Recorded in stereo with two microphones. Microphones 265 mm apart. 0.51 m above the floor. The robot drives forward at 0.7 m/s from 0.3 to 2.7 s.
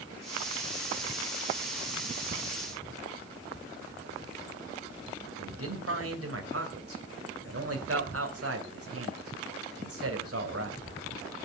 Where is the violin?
No violin in this recording.